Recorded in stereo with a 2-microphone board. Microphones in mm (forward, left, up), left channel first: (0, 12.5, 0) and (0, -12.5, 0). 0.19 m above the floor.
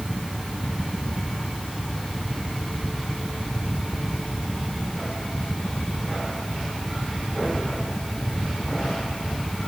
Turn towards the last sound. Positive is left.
No sound to turn to.